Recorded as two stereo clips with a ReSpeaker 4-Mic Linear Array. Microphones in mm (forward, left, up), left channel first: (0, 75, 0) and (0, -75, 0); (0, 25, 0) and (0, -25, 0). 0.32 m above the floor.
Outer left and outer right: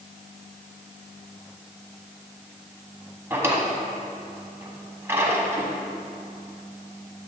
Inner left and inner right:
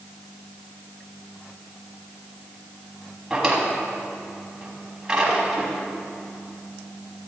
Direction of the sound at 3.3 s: 15° right (ahead or behind).